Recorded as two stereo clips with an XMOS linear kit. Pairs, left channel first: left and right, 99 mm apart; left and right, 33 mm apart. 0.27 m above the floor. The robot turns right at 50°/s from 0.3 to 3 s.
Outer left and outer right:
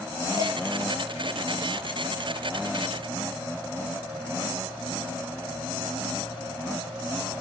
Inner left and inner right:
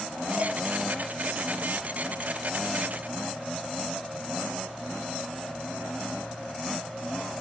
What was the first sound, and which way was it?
Dishes clattering, 40° right (ahead or behind).